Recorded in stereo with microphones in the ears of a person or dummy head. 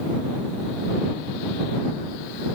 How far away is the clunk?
No clunk in this recording.